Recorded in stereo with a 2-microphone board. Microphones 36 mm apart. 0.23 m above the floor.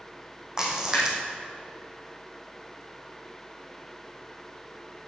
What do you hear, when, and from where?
0.6 s a splash: 20° right (ahead or behind), 3 m